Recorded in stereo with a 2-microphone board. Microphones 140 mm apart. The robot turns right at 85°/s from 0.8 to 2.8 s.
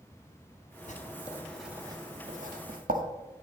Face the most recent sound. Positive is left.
turn(degrees=-75)  # may be behind; listen again after turning